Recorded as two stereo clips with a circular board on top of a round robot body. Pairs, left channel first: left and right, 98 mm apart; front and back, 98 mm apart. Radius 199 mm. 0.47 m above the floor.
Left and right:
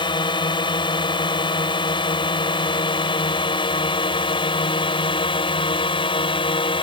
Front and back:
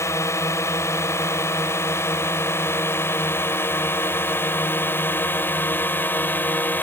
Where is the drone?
60° left; by 6.8 s 70° left.